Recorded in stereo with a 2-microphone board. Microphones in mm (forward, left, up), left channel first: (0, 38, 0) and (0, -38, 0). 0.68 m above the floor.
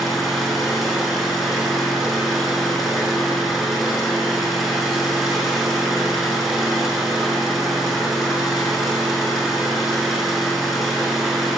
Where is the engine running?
5° right (ahead or behind), 5.5 m.